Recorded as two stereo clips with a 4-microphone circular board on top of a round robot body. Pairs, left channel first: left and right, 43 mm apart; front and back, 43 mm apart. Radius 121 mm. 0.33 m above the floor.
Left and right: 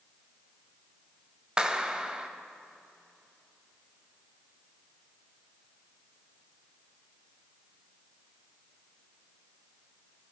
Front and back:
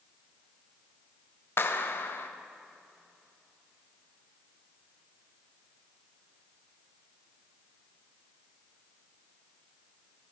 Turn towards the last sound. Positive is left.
turn(degrees=-20)